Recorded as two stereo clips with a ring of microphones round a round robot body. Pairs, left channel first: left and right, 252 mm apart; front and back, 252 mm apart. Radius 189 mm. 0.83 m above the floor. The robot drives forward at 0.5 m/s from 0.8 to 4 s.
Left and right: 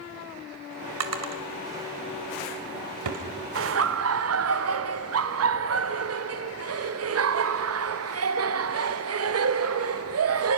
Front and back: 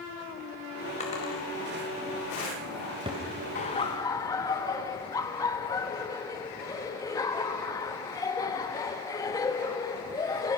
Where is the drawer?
70° right, 2.0 m; by 3.2 s 105° right, 1.9 m.